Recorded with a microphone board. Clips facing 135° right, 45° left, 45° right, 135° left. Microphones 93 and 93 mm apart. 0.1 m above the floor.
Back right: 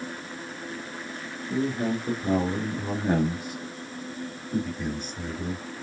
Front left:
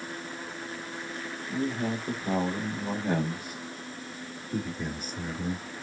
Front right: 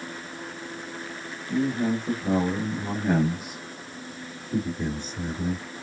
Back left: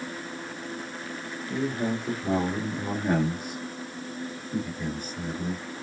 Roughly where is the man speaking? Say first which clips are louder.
Back right 4 dB, front right 4 dB; behind right.